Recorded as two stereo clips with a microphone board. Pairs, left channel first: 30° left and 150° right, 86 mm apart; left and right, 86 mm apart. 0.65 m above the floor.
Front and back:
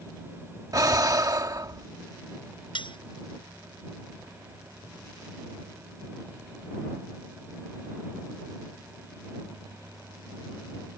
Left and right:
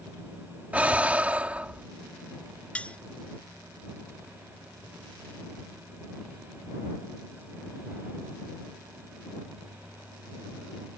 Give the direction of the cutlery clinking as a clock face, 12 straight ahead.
12 o'clock.